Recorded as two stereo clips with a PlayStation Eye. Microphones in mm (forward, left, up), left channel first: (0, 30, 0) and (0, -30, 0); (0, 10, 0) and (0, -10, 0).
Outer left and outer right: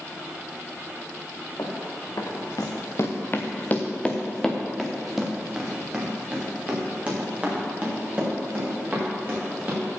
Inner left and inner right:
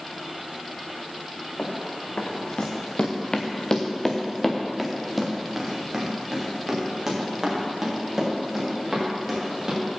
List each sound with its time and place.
1.6 s running footsteps: 85° left, 2.5 m; by 9.8 s 30° right (ahead or behind), 7.5 m